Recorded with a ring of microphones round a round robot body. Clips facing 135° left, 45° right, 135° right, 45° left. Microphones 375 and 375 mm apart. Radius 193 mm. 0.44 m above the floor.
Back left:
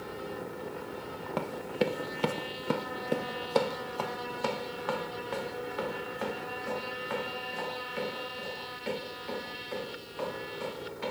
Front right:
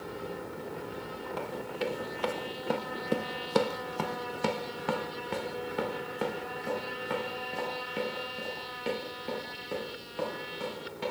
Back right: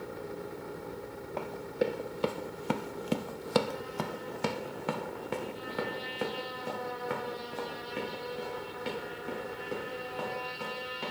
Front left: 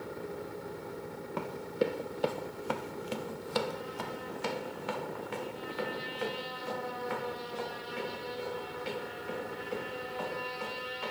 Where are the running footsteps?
115° left, 0.8 m; by 11.1 s 90° right, 4.5 m.